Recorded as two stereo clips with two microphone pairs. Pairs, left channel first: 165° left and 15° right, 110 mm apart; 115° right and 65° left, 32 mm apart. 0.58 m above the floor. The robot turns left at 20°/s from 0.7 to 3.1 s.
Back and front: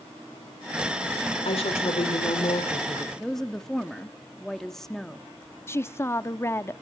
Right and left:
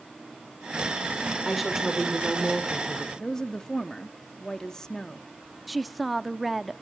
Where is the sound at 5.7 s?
165° left, 0.6 m.